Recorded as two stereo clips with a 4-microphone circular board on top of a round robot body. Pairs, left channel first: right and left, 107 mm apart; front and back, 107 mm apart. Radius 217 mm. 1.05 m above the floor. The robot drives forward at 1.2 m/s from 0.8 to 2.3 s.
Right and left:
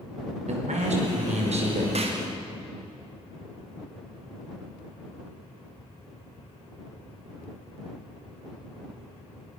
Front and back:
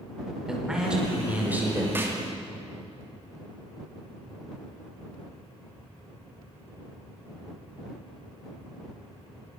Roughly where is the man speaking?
Left.